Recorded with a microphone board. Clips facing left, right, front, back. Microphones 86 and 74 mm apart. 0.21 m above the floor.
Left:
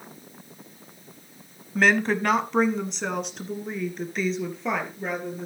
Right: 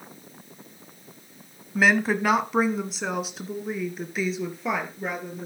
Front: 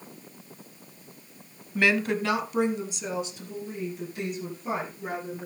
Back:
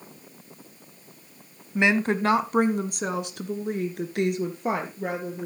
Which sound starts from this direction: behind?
A woman speaking, at 1.8 s.